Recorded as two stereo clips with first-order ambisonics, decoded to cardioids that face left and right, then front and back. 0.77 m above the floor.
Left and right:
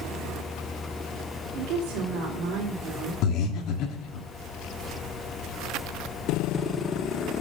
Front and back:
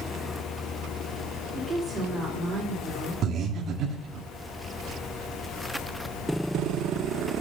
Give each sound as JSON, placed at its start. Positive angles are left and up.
{"t": 1.6, "sound": "a woman speaking", "azimuth_deg": -105, "distance_m": 3.0}
{"t": 3.2, "sound": "breathing", "azimuth_deg": 125, "distance_m": 1.4}